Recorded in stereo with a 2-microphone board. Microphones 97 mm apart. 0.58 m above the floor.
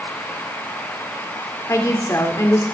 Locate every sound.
1.7 s a woman speaking: 35° left (ahead or behind), 2 m